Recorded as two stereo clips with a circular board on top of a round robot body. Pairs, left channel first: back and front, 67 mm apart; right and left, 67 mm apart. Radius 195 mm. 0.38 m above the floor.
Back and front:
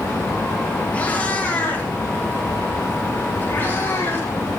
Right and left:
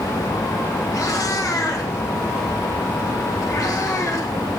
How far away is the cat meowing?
About 4 m.